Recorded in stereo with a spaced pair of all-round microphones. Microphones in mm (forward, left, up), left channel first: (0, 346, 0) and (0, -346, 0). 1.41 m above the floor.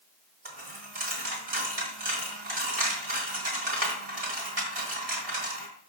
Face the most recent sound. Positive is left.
turn(degrees=-55)  # may be behind; listen again after turning